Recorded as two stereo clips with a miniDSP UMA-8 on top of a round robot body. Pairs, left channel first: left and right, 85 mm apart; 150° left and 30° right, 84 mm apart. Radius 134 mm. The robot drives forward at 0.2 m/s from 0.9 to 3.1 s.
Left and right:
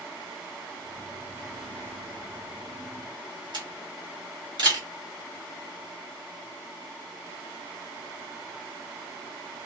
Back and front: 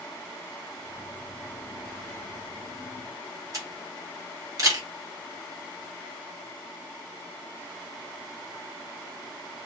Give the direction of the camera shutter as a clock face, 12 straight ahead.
3 o'clock.